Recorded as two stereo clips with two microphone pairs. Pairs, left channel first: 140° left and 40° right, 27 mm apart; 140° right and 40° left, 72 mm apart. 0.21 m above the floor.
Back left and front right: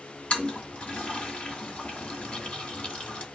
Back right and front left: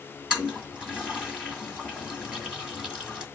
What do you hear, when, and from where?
0.3 s a toilet flushing: 115° left, 2 m